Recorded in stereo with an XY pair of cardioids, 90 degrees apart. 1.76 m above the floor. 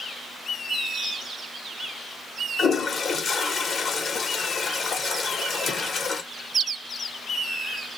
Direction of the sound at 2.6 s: 55° left.